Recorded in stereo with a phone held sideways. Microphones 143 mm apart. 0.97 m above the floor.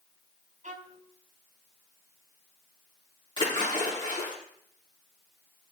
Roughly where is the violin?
Right.